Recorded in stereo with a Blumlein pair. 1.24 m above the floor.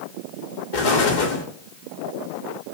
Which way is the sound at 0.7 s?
50° left.